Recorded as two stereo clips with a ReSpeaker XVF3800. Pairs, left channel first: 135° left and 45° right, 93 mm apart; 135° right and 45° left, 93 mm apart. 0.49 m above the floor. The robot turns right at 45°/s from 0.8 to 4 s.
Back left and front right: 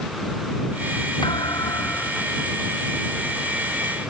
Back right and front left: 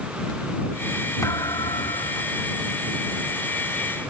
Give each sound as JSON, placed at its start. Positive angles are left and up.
{"t": 1.2, "sound": "a thud", "azimuth_deg": 170}